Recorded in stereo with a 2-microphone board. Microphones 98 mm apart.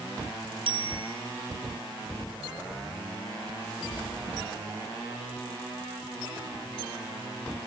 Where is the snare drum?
I don't hear a snare drum.